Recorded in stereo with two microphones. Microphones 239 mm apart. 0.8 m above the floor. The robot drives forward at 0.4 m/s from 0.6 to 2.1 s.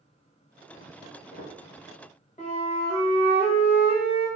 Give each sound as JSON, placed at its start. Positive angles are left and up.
{"t": 1.0, "sound": "footsteps", "side_deg": 60, "distance_m": 1.6}
{"t": 2.4, "sound": "a flute", "side_deg": 30, "distance_m": 0.9}